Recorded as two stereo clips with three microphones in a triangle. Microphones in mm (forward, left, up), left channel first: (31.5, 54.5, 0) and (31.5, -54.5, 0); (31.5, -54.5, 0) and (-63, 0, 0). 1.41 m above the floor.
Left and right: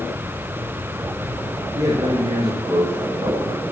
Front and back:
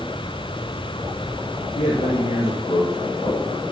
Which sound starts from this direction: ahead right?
A man speaking, at 1.8 s.